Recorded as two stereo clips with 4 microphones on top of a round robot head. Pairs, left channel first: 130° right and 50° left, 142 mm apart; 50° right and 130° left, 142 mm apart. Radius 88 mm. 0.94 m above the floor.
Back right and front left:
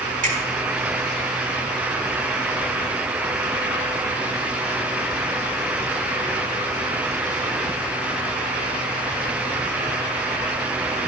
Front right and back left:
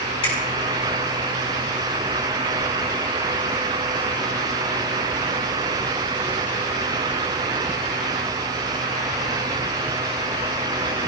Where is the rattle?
No rattle in this recording.